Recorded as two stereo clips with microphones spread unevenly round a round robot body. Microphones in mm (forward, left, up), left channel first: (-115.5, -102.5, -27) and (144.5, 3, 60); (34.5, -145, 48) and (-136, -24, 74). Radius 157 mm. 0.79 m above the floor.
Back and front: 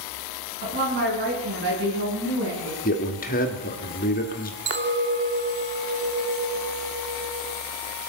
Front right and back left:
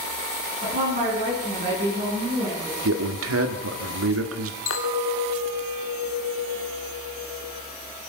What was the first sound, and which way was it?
A woman speaking, 80° left.